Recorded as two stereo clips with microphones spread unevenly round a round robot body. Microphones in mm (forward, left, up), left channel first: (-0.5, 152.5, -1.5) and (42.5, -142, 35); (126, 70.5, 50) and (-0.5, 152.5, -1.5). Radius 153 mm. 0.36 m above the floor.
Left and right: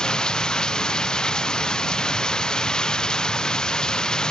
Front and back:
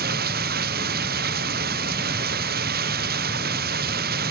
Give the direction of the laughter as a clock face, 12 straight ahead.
No laughter in this recording.